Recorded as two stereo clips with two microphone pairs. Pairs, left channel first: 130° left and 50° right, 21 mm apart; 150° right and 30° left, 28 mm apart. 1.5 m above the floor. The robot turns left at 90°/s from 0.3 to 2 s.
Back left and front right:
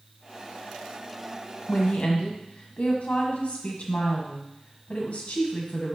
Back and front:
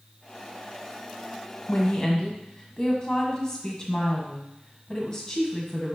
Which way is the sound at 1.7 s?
175° right.